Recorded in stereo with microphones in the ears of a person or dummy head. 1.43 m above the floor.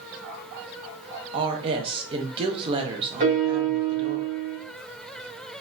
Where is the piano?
45° right (ahead or behind), 2.5 m.